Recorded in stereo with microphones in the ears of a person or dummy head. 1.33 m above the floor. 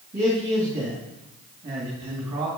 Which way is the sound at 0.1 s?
30° right (ahead or behind).